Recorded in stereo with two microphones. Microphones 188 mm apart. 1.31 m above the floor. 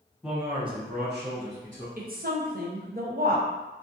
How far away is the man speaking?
About 1.0 m.